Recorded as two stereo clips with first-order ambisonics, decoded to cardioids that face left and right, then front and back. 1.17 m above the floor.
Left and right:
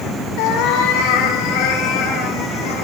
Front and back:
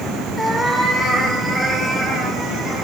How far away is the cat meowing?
About 2.5 m.